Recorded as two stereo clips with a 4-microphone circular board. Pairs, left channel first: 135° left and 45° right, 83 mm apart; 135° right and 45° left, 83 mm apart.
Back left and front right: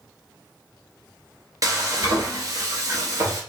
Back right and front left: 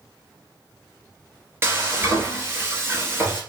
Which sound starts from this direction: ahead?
Frying, at 1.6 s.